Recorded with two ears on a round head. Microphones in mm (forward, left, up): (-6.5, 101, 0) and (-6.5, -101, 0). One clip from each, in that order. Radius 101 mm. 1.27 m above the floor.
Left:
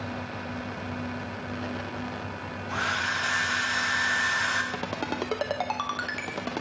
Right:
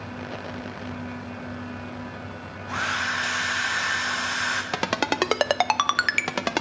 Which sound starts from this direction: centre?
A hair dryer, at 2.7 s.